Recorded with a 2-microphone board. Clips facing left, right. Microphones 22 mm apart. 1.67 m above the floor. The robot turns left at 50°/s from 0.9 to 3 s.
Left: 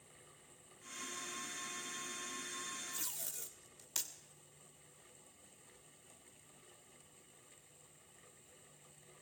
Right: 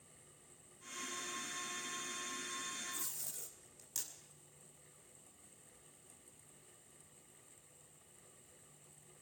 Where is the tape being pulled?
65° left (ahead or behind), 2.5 m.